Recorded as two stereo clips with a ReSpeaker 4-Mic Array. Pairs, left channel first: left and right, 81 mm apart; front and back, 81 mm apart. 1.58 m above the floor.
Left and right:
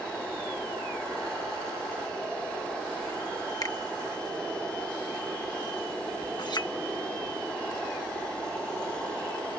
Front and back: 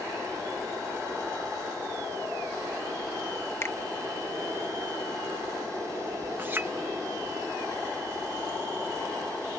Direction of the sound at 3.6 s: 55° left.